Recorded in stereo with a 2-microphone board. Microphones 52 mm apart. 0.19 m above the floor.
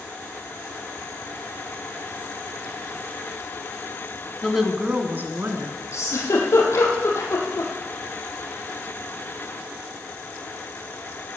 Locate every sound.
4.4 s a woman speaking: centre (ahead or behind), 1.4 m; by 5.8 s 55° right (ahead or behind), 2 m
5.9 s a giggle: 65° left (ahead or behind), 3.5 m